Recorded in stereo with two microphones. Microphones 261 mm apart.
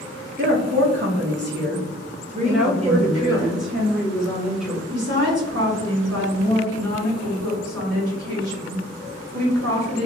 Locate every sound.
0.4 s a woman speaking: 50° right (ahead or behind), 1.4 m; by 3.4 s 10° right (ahead or behind), 1.3 m
2.4 s a woman speaking: centre (ahead or behind), 1.3 m
4.9 s a woman speaking: 65° right (ahead or behind), 1.7 m